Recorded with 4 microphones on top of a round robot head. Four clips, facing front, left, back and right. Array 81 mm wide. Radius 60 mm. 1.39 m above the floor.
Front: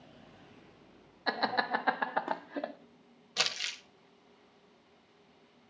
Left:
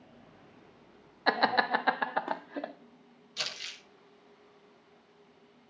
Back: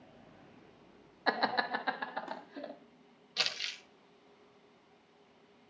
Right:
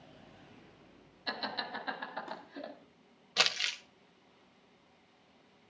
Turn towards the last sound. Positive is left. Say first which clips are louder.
# right 8 dB, front 3 dB
turn(degrees=-70)